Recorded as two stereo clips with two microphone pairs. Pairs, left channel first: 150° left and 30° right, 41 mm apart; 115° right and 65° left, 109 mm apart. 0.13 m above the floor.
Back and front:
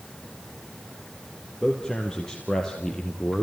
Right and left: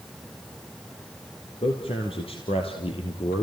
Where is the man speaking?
140° right, 3 m; by 3.4 s 135° right, 2.5 m.